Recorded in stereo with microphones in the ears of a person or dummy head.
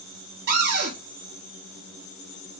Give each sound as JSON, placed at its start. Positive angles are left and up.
{"t": 0.5, "sound": "a cupboard door", "side_deg": -65, "distance_m": 1.4}